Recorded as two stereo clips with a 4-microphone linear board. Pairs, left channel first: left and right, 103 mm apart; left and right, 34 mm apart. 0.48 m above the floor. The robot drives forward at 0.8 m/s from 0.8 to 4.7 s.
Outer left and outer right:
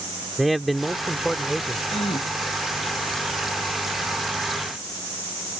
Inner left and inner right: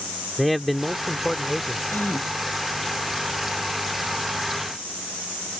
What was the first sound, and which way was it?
A man speaking, centre (ahead or behind).